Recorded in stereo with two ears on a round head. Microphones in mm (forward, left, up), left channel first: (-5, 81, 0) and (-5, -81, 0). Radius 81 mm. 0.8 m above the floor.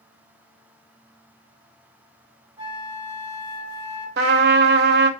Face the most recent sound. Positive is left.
turn(degrees=-60)  # may be behind; listen again after turning